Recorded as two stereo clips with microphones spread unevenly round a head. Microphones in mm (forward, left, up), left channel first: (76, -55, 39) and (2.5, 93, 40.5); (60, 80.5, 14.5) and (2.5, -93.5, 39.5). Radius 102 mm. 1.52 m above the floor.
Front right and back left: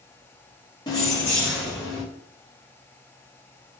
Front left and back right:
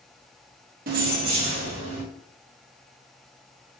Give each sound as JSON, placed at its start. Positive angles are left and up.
{"t": 0.9, "sound": "keys jangling", "azimuth_deg": -130, "distance_m": 0.6}